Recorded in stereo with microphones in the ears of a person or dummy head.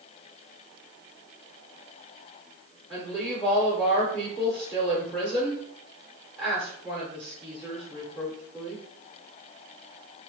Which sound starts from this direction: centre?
A woman speaking, at 2.9 s.